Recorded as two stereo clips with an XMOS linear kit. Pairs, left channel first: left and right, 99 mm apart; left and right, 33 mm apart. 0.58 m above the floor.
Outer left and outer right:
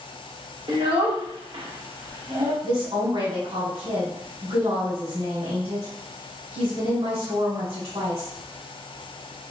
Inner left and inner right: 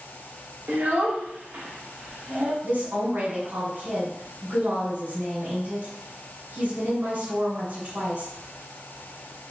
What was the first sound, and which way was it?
A child speaking, 55° right (ahead or behind).